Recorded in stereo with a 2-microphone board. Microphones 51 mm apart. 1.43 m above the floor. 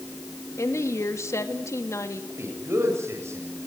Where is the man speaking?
70° right (ahead or behind), 8 m.